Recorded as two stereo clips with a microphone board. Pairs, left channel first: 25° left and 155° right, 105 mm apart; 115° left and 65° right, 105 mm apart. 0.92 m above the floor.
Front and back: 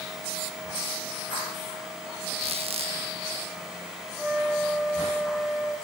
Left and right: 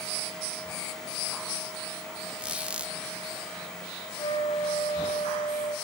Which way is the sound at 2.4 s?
145° right.